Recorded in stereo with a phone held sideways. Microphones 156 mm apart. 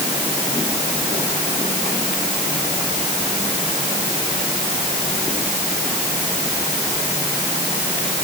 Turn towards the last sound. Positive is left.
No sound to turn to.